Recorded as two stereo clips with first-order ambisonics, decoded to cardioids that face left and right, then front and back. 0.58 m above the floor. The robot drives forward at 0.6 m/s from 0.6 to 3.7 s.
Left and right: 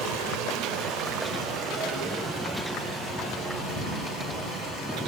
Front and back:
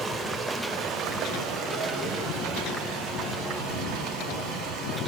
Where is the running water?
110° right, 1.1 m; by 5.1 s 155° right, 2.5 m.